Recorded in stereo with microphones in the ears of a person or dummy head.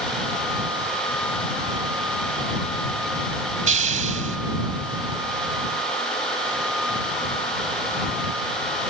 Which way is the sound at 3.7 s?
35° right (ahead or behind).